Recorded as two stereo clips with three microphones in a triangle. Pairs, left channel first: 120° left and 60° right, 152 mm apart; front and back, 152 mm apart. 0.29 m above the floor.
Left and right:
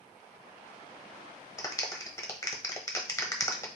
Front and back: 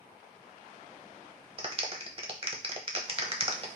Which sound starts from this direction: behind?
A clap, at 1.6 s.